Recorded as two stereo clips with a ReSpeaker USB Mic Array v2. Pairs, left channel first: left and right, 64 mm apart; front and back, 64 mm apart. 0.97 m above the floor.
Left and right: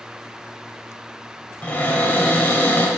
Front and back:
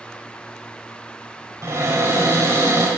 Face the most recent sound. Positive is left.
turn(degrees=150)